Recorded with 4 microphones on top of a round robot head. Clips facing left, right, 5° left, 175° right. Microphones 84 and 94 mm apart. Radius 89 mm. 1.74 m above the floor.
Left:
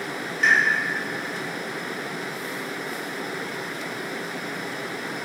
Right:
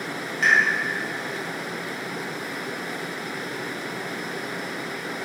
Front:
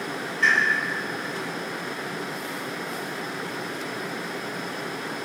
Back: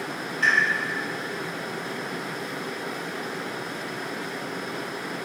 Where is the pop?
110° right, 2.5 m.